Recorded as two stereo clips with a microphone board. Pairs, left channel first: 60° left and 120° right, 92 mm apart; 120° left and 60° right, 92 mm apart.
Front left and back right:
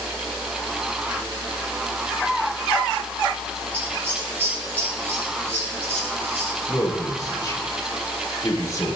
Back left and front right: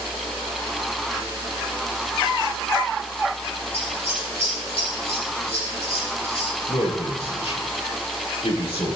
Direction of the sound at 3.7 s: 135° left.